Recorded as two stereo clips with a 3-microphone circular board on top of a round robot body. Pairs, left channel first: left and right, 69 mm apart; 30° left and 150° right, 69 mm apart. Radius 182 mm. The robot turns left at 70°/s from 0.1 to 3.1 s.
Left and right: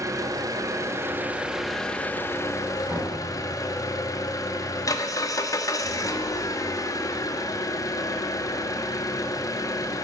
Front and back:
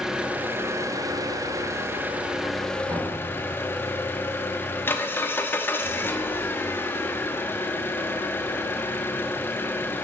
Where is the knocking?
140° right, 6 m; by 3.1 s 155° right, 6 m.